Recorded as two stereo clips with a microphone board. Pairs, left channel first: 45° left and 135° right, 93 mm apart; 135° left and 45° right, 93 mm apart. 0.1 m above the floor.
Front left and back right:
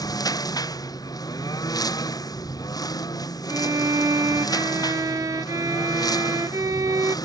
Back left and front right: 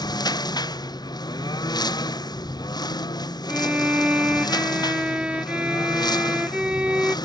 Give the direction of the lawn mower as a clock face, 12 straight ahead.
9 o'clock.